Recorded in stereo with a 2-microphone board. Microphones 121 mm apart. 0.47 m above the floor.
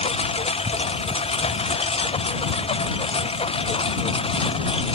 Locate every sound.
0.0 s a lawn mower: 55° left (ahead or behind); by 5.0 s 50° left (ahead or behind)